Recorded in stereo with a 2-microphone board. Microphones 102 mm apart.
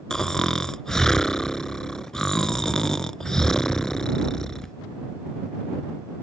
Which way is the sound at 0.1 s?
5° left (ahead or behind).